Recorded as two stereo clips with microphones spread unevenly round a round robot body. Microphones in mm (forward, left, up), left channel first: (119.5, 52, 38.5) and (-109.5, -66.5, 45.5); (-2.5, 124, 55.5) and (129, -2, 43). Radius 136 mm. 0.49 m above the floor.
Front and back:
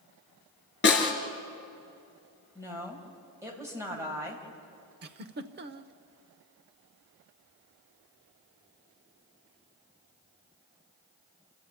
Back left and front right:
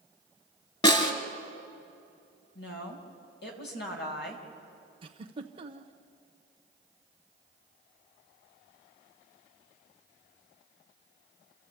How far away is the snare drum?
About 3 m.